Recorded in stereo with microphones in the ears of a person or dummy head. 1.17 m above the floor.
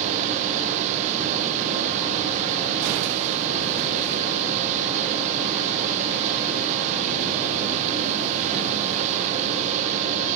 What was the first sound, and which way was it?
A fan, 40° right (ahead or behind).